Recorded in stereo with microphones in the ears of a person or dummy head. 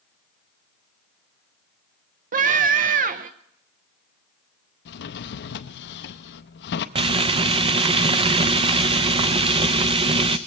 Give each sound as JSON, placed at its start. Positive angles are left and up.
{"t": 2.3, "sound": "a scream", "side_deg": -45, "distance_m": 0.9}
{"t": 4.8, "sound": "a drawer", "side_deg": 60, "distance_m": 0.7}
{"t": 7.0, "sound": "frying", "side_deg": -35, "distance_m": 0.6}